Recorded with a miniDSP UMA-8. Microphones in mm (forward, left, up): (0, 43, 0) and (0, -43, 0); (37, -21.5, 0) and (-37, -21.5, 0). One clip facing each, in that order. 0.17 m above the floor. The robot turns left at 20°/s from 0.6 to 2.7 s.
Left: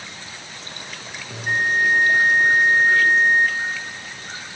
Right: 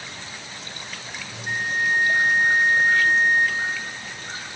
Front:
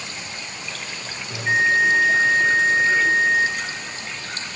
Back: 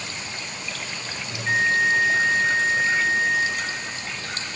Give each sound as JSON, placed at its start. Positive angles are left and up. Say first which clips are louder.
{"t": 1.3, "sound": "a bell", "louder": "left 6 dB, front 3 dB", "azimuth_deg": 70, "distance_m": 0.6}